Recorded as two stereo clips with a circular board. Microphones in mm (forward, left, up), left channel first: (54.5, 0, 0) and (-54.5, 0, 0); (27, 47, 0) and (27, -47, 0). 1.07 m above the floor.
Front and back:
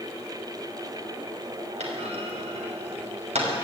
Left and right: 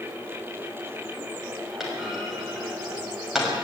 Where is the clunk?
175° right, 6 m.